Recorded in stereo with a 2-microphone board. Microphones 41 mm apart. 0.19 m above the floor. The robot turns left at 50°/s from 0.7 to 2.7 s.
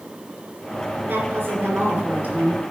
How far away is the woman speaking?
About 3 m.